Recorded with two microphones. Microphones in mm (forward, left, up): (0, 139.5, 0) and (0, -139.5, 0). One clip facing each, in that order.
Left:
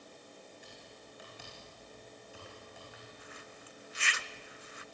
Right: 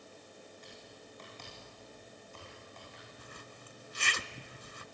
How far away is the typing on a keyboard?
About 8.5 m.